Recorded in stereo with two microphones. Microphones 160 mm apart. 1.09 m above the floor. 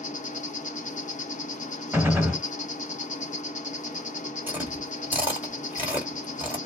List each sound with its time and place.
0.0 s an insect: 50° left (ahead or behind), 0.7 m
1.9 s a gunshot: 15° right (ahead or behind), 1.7 m
4.5 s chewing: 10° right (ahead or behind), 1.5 m